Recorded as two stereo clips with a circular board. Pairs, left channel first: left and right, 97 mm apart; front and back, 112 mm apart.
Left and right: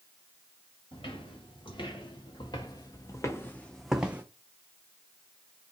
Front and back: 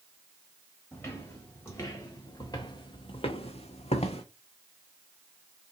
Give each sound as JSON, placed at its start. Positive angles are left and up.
{"t": 0.9, "sound": "footsteps", "azimuth_deg": 75, "distance_m": 1.9}